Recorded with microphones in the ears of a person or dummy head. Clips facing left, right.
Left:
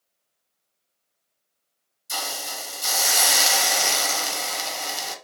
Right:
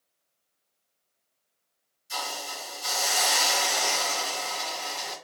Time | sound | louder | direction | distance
2.1 | a hiss | left 2 dB | 60° left (ahead or behind) | 0.8 m